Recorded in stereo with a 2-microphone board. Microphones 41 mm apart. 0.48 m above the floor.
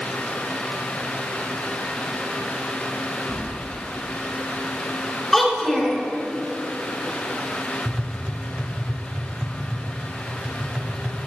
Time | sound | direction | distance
3.3 | keys jangling | 45° left (ahead or behind) | 2 m
5.3 | a child speaking | 10° left (ahead or behind) | 3 m
7.8 | tapping | 25° right (ahead or behind) | 1.0 m